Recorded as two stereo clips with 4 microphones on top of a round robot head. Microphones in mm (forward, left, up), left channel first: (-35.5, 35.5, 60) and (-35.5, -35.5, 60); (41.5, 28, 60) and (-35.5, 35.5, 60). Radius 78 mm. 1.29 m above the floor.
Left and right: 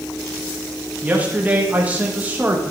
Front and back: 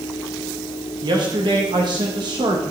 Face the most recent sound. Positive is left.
turn(degrees=-155)